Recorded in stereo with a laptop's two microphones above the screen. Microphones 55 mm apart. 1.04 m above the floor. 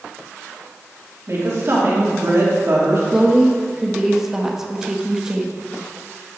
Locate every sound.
1.3 s a woman speaking: 50° right (ahead or behind), 2.5 m
3.1 s a woman speaking: 10° right (ahead or behind), 1.0 m